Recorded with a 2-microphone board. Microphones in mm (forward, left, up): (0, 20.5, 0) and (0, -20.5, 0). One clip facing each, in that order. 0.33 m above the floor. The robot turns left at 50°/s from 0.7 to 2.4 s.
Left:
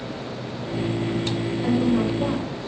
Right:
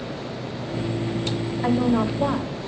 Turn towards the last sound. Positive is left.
turn(degrees=-135)